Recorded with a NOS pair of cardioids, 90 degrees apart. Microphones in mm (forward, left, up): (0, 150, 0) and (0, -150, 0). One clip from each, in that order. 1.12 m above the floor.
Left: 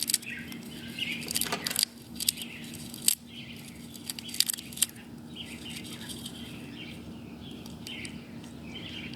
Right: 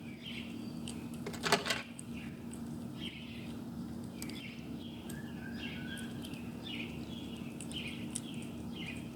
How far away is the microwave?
About 0.7 m.